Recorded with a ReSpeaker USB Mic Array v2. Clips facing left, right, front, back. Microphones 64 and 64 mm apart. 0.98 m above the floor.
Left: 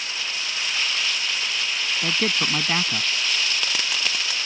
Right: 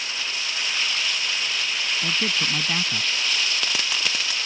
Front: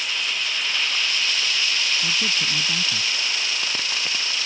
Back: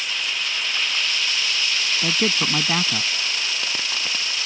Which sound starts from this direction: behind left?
A man speaking, at 2.0 s.